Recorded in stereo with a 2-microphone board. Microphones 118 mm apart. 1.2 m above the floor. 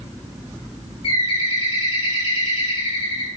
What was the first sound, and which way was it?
A bird, 50° left (ahead or behind).